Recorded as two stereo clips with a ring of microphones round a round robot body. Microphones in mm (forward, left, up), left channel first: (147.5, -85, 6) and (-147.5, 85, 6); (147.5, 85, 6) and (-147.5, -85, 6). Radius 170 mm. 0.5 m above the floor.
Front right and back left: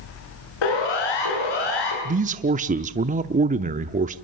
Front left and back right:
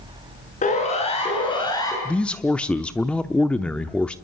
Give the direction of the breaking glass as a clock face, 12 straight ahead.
I don't hear breaking glass.